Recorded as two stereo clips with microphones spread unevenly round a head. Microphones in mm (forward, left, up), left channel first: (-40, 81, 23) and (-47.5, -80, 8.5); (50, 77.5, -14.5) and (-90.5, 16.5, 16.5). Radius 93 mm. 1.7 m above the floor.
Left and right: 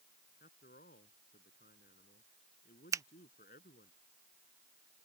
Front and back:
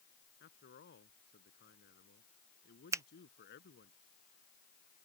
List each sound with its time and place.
0.4 s a man speaking: 35° left
2.9 s a finger snap: 155° right